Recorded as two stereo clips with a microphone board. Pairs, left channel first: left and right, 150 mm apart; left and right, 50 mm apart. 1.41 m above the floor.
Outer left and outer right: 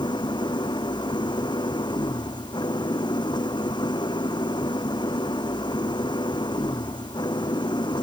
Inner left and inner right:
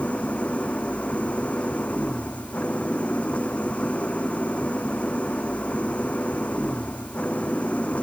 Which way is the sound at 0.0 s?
30° left (ahead or behind).